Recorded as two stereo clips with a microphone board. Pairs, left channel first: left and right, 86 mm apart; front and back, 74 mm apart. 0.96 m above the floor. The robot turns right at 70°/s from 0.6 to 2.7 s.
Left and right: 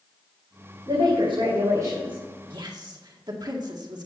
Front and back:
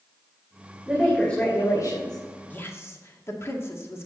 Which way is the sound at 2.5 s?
70° right.